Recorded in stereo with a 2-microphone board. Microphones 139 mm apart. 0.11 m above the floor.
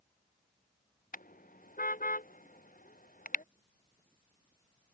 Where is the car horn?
85° left.